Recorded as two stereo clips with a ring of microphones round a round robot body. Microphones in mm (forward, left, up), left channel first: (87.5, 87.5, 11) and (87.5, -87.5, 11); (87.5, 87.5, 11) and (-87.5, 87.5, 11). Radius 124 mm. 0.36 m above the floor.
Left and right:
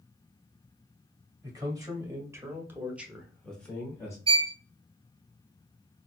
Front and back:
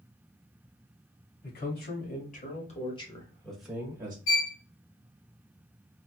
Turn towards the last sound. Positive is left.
turn(degrees=-30)